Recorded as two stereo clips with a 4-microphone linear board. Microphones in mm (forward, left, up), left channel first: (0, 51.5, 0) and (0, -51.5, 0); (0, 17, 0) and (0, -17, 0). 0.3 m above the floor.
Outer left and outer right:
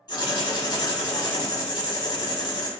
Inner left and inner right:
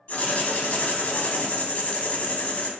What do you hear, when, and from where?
0.1 s writing: 45° left (ahead or behind), 0.5 m